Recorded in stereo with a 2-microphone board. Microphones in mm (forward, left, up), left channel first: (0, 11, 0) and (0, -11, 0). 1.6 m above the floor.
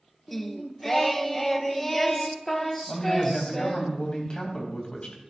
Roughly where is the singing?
Centre.